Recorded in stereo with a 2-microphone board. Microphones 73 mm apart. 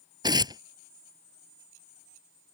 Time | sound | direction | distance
0.2 | tearing paper | 70° right (ahead or behind) | ?